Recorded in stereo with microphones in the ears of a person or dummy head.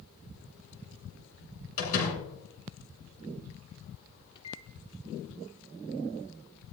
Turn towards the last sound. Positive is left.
turn(degrees=30)  # may be behind; listen again after turning